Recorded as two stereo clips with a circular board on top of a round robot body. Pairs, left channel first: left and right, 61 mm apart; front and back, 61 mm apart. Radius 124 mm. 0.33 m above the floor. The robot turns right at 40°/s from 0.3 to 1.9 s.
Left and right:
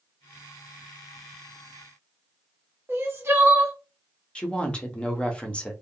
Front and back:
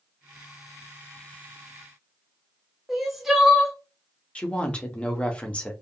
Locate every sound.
2.9 s crying: 95° right, 1.1 m
4.3 s a woman speaking: 40° left, 0.9 m